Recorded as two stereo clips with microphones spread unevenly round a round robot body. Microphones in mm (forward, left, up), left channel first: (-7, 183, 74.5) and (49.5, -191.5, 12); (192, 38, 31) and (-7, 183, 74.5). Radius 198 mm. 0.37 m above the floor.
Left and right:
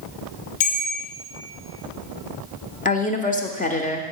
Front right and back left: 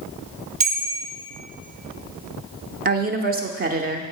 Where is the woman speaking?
165° left, 0.9 m.